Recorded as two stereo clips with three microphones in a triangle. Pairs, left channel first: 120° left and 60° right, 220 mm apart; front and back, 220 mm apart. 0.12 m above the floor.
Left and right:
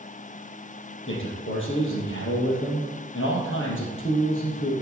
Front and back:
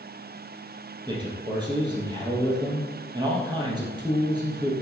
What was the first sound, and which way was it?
A man speaking, 110° left.